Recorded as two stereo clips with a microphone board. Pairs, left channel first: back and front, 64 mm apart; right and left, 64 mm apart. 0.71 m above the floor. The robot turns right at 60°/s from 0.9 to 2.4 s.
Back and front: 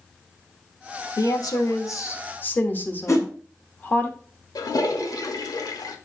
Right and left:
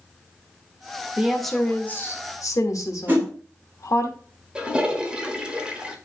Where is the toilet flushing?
165° left, 1.2 m.